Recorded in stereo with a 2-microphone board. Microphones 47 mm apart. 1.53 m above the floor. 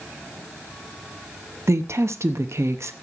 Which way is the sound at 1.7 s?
65° right (ahead or behind).